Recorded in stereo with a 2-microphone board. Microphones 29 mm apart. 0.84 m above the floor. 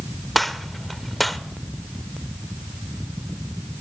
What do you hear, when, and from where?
0.3 s a gunshot: 5° left (ahead or behind), 0.7 m